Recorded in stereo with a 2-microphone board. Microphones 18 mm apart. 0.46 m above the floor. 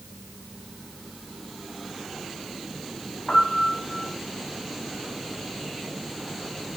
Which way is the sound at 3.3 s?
55° left (ahead or behind).